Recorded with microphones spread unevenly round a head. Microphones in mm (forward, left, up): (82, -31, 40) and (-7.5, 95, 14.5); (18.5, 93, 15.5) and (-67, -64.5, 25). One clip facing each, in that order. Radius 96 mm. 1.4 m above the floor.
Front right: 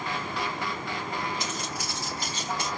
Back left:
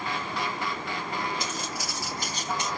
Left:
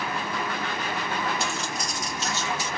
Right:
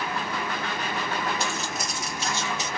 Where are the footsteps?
155° left, 2.5 m; by 2.7 s 145° right, 1.4 m.